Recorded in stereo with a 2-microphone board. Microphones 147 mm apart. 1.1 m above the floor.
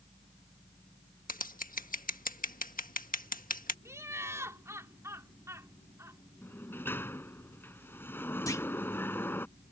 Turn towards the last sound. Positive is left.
turn(degrees=20)  # may be behind; listen again after turning